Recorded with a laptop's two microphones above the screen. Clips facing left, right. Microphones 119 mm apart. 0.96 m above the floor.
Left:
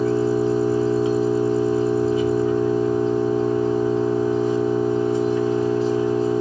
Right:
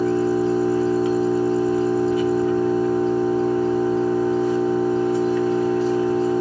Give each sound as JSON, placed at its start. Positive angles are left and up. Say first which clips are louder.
{"t": 0.0, "sound": "an engine running", "louder": "even", "side_deg": 20, "distance_m": 4.5}